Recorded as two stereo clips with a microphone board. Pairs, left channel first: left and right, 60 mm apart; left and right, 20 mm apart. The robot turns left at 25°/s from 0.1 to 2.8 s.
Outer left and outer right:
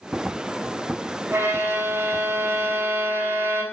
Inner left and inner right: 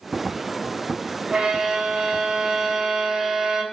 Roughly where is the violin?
Right.